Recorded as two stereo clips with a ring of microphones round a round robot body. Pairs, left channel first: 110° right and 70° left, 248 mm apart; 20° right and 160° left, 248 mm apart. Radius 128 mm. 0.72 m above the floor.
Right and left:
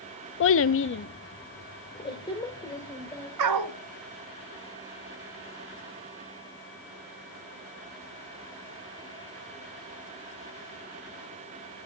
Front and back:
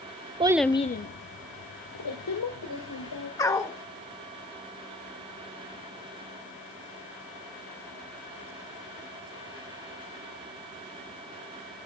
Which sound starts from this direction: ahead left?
A dog barking, at 3.4 s.